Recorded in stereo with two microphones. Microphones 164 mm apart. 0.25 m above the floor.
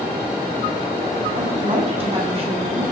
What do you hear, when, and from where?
1.3 s a woman speaking: 35° right (ahead or behind), 2 m